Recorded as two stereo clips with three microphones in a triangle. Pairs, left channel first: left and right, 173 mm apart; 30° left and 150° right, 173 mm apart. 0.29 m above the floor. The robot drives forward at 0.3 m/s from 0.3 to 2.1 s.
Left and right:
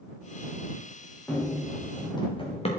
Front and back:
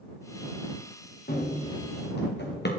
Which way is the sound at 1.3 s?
10° left.